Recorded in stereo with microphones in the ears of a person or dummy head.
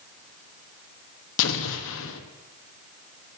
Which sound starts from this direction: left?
An explosion, at 1.4 s.